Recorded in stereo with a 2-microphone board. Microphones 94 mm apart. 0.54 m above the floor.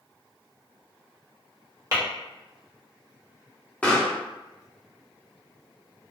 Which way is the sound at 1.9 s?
35° right (ahead or behind).